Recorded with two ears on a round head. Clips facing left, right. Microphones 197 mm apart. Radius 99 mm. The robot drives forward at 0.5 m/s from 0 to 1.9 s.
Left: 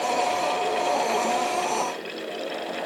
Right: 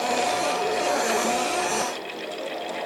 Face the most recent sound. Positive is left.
No sound to turn to.